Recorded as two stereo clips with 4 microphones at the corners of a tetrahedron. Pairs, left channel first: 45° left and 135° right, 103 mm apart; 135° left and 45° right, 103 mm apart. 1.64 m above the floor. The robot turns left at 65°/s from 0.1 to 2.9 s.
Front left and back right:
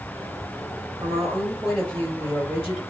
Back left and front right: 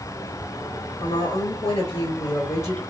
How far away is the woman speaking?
About 1.9 m.